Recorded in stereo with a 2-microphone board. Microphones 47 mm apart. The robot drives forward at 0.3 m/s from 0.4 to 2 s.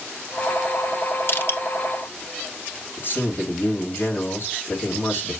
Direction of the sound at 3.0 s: 50° left (ahead or behind).